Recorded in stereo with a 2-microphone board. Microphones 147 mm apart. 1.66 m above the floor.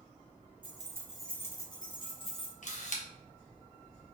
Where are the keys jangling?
35° right (ahead or behind), 0.6 m; by 2.5 s 40° left (ahead or behind), 1.3 m.